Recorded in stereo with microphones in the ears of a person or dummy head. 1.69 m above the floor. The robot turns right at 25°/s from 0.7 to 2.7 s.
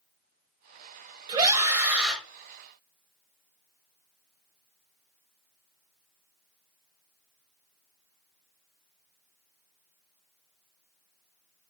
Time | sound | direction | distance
1.3 | a scream | 25° right (ahead or behind) | 1.1 m